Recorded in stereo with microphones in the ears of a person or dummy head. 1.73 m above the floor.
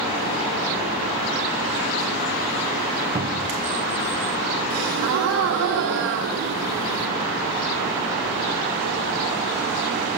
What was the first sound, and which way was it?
A cupboard door, 20° right (ahead or behind).